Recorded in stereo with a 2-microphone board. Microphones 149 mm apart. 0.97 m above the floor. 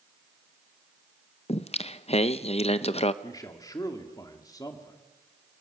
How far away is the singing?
About 0.6 m.